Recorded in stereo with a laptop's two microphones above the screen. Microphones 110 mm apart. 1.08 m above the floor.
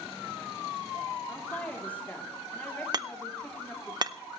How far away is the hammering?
About 0.6 m.